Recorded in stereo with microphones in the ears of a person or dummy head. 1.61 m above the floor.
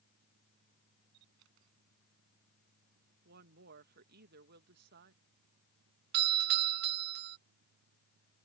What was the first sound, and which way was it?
A camera shutter, 75° right (ahead or behind).